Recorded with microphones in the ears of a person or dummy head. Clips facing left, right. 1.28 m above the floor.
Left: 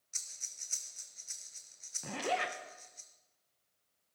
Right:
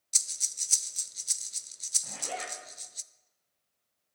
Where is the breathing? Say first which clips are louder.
Right 7 dB; 55° right (ahead or behind), 0.6 m.